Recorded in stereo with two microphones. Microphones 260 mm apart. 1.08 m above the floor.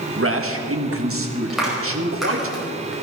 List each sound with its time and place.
0.2 s a man speaking: 50° right (ahead or behind), 1.6 m
1.5 s a clap: centre (ahead or behind), 5 m